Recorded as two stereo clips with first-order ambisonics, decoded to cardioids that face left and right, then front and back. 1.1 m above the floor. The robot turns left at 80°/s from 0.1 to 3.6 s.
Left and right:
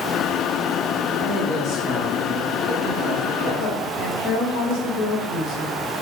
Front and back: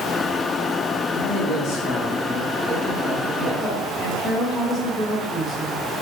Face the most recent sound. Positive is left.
turn(degrees=80)